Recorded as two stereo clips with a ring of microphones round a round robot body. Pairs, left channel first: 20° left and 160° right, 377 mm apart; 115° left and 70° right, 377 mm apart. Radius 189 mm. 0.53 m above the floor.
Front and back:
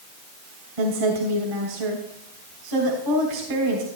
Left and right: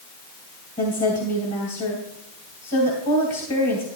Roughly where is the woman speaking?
Behind.